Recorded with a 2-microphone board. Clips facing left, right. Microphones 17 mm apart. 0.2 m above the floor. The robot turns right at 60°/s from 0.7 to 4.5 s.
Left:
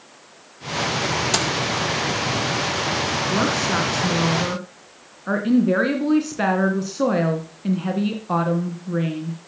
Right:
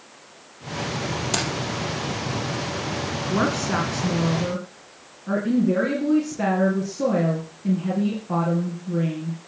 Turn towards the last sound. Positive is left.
turn(degrees=60)